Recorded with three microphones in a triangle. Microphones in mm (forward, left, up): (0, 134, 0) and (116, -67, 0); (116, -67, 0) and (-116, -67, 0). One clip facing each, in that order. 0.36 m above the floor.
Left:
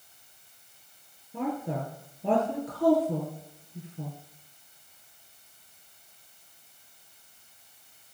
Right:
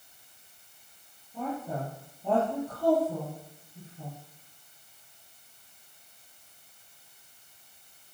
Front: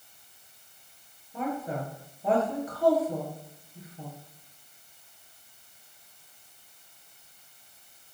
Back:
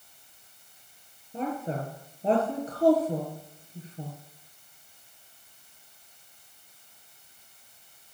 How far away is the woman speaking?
About 5.5 m.